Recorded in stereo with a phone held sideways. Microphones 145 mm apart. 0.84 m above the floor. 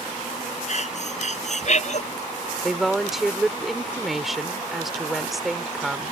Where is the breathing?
55° left (ahead or behind).